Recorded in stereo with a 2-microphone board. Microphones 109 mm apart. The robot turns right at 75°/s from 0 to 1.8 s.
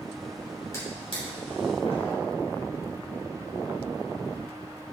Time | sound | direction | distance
0.7 | a drawer | 25° left (ahead or behind) | 3.5 m